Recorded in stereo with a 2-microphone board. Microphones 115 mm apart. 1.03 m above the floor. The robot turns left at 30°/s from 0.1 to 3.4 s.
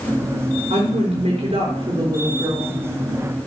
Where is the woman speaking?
90° right, 4 m; by 2.8 s 150° right, 4 m.